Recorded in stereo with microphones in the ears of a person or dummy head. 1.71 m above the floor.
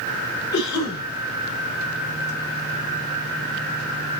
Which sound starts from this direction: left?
A cough, at 0.5 s.